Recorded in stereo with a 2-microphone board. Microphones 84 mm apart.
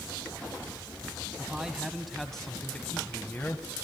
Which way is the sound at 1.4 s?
10° right (ahead or behind).